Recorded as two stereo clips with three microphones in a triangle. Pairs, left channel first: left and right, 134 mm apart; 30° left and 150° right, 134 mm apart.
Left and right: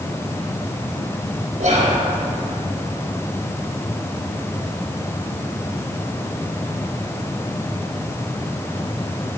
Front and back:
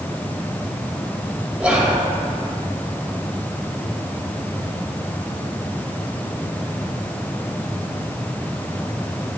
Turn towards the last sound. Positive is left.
turn(degrees=-65)